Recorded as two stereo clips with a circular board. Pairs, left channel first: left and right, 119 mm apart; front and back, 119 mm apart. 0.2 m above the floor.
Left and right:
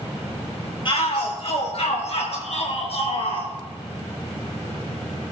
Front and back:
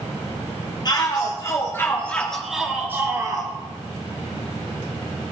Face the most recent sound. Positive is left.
turn(degrees=130)